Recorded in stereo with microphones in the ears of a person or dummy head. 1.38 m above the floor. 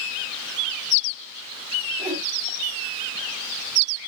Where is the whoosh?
25° right (ahead or behind), 1.6 m.